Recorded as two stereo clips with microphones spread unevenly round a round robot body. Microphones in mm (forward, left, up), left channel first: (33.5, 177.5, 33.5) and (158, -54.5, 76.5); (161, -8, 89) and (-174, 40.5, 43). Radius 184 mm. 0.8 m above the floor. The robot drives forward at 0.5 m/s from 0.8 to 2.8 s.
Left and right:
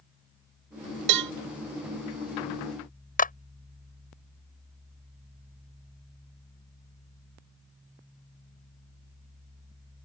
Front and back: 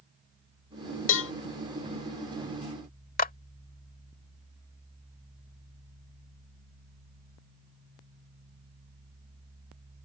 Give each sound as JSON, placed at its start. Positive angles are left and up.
{"t": 1.1, "sound": "a cowbell", "azimuth_deg": -60}
{"t": 3.2, "sound": "a clap", "azimuth_deg": 60}